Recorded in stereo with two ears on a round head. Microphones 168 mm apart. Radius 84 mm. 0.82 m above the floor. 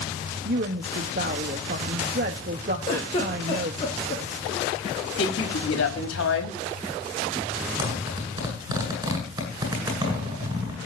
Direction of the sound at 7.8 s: 20° right (ahead or behind).